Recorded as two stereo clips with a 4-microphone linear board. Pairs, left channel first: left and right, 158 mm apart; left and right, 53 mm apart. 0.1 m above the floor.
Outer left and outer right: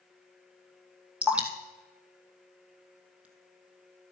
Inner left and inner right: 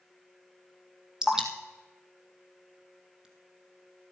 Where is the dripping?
10° right (ahead or behind), 2 m.